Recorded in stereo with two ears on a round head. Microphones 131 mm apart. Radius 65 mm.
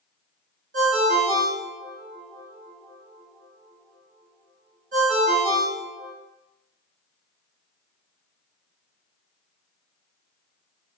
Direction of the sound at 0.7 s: 65° right (ahead or behind).